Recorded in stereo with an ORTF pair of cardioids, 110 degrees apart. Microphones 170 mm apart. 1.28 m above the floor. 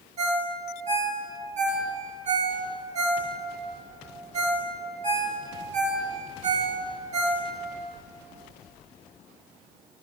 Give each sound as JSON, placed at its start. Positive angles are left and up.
{"t": 0.2, "sound": "a ringtone", "azimuth_deg": -40, "distance_m": 1.7}